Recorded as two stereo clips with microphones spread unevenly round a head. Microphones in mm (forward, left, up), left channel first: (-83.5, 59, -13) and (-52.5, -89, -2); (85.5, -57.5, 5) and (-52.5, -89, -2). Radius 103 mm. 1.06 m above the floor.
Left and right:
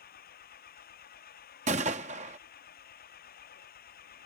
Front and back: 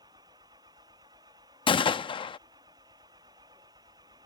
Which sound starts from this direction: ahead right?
A gunshot, at 1.7 s.